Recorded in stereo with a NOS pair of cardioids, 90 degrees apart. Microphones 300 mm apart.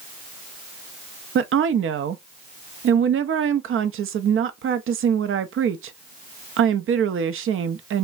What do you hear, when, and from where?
1.4 s a woman speaking: 45° right, 0.6 m